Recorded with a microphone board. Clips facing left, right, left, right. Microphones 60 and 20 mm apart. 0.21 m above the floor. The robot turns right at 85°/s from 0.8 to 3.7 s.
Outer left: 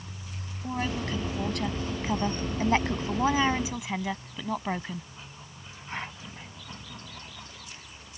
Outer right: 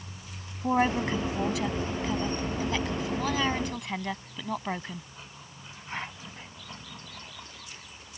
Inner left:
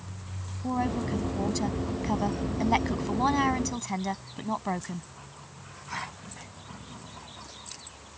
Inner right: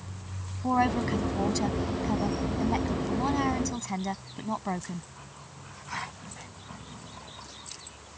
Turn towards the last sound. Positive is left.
turn(degrees=175)